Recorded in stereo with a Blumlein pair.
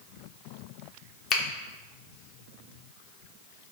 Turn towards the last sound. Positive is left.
turn(degrees=35)